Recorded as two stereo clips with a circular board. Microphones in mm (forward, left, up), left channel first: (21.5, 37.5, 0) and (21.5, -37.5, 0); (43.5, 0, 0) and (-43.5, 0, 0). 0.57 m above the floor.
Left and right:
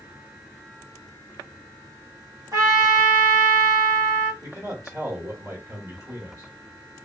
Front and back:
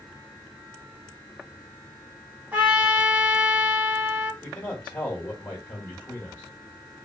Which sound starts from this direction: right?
A man speaking, at 4.4 s.